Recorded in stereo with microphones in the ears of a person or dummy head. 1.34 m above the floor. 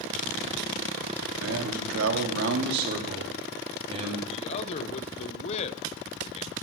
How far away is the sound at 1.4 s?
About 2.5 m.